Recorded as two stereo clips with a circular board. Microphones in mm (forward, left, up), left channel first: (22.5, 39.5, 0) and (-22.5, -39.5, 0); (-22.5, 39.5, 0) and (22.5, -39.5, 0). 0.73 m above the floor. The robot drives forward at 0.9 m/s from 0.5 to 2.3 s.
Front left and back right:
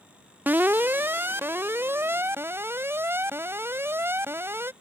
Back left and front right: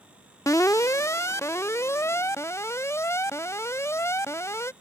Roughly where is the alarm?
Behind.